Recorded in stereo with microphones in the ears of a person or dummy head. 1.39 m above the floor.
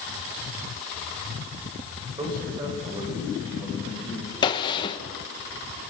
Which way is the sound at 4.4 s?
25° left (ahead or behind).